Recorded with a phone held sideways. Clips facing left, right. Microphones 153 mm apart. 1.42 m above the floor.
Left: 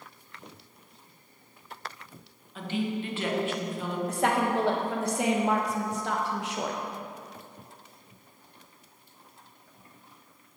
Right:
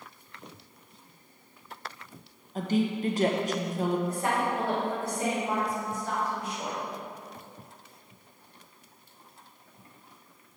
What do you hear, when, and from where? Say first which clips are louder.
2.5 s a woman speaking: right 3 dB; 40° right (ahead or behind), 1.3 m
4.1 s a woman speaking: left 3 dB; 75° left (ahead or behind), 1.3 m